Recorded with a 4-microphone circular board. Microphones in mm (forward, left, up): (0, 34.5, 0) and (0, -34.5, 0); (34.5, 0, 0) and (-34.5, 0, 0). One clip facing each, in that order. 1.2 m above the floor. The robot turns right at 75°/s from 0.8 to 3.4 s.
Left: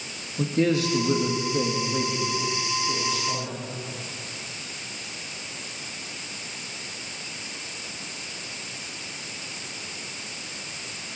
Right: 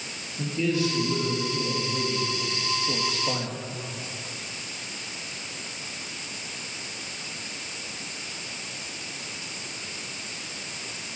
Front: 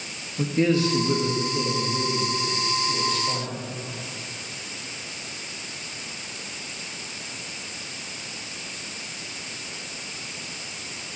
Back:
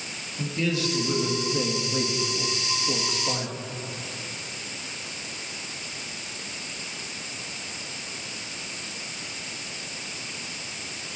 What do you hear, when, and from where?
0.4 s a man speaking: 60° left, 1.9 m; by 3.5 s 105° right, 1.9 m